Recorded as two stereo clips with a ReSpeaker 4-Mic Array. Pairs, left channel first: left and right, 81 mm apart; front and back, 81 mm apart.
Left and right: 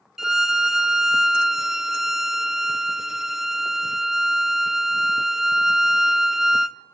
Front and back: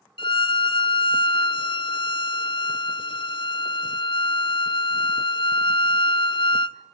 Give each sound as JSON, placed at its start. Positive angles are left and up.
{"t": 0.2, "sound": "a violin", "azimuth_deg": -5, "distance_m": 0.6}